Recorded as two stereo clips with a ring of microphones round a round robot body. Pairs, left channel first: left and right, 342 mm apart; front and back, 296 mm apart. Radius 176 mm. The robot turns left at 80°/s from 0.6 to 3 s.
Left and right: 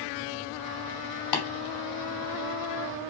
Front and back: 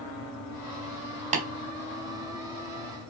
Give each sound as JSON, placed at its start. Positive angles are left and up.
{"t": 1.3, "sound": "tapping", "azimuth_deg": 115, "distance_m": 2.5}